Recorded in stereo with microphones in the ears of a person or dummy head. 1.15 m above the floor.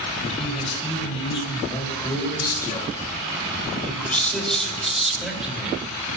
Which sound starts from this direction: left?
A man speaking, at 0.2 s.